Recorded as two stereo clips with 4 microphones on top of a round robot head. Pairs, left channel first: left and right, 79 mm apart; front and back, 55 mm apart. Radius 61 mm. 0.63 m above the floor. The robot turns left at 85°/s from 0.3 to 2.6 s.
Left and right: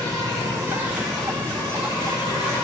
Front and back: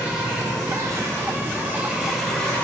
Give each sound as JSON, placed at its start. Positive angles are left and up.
{"t": 0.0, "sound": "an insect", "azimuth_deg": -115, "distance_m": 1.3}